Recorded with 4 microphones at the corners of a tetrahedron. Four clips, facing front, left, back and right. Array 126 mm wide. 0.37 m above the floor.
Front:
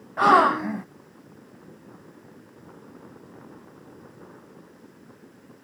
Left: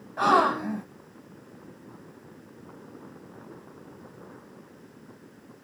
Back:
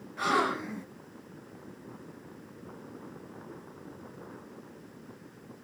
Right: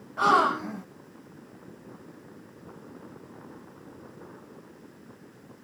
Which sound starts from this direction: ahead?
A gasp, at 0.2 s.